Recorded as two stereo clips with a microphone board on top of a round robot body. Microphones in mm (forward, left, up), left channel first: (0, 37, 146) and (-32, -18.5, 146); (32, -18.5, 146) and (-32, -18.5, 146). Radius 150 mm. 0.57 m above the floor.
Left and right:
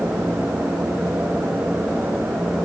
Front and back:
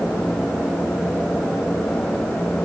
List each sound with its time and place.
Only background noise.